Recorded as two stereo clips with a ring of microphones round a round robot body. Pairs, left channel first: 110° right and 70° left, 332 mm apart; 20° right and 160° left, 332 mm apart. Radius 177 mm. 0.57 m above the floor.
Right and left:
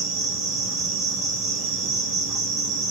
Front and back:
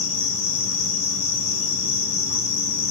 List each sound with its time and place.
0.0 s an insect: 20° right, 3.5 m